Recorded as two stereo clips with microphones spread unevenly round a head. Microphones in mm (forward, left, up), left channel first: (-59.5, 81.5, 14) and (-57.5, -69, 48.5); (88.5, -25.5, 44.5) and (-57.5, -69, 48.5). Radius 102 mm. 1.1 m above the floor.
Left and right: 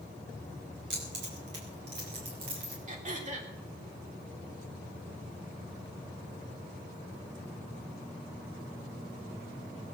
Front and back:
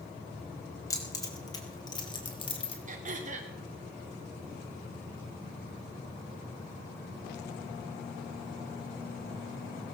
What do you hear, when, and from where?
0.9 s keys jangling: 50° right, 4.5 m; by 2.8 s 35° right, 3.5 m
2.9 s throat clearing: 125° right, 3 m